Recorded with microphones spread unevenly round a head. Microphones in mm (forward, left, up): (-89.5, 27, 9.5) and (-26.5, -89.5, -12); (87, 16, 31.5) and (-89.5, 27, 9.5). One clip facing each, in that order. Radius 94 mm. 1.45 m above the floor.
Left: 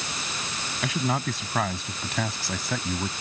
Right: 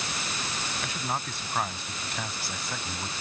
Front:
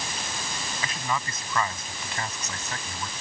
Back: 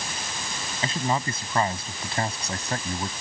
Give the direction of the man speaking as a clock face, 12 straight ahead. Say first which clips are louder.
Left 9 dB, back 6 dB; 8 o'clock.